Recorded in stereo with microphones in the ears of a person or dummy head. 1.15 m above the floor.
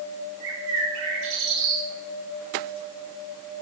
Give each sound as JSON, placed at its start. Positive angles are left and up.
{"t": 0.4, "sound": "a bird", "side_deg": -75, "distance_m": 3.0}